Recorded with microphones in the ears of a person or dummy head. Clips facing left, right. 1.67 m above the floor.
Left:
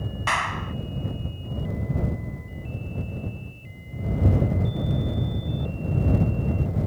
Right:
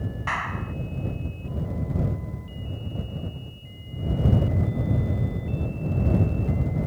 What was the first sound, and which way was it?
A clap, 50° left (ahead or behind).